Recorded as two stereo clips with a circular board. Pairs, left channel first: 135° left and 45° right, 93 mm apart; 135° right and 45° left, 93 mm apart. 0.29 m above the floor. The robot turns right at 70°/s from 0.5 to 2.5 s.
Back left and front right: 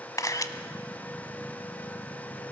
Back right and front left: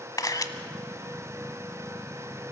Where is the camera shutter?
Straight behind, 0.9 m.